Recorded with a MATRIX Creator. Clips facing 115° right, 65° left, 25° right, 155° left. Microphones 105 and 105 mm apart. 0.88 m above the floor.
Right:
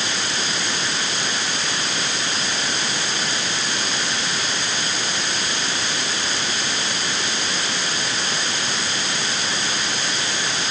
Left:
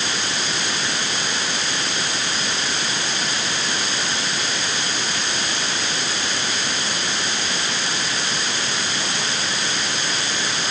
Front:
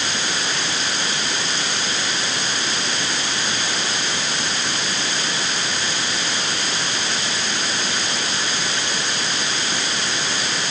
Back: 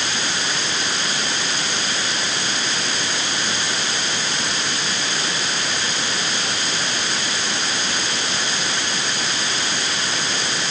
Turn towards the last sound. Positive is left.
No sound to turn to.